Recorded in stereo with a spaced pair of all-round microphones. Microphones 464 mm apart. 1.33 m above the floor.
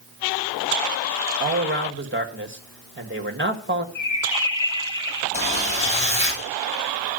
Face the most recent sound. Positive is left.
turn(degrees=15)  # may be behind; listen again after turning